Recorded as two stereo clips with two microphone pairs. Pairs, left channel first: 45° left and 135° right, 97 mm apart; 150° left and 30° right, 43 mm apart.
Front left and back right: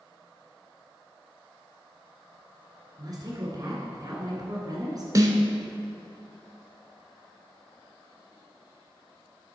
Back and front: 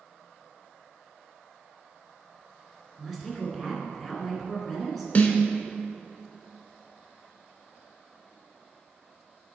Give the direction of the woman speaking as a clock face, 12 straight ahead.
4 o'clock.